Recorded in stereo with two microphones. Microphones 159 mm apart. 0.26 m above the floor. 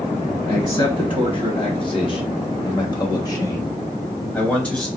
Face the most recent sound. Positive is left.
turn(degrees=5)  # may be behind; listen again after turning